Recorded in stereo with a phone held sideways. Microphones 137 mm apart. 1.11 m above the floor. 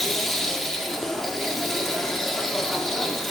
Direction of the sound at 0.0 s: 5° left (ahead or behind).